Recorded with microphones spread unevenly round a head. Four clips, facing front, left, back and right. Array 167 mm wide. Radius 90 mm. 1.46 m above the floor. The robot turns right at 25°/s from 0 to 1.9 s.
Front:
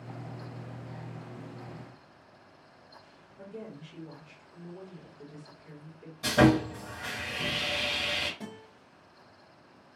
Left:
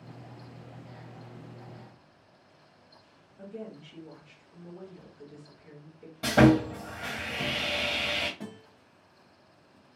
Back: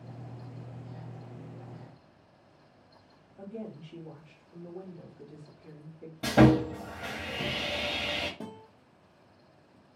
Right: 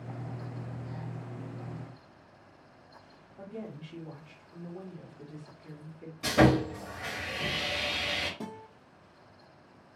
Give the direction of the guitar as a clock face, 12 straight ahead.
5 o'clock.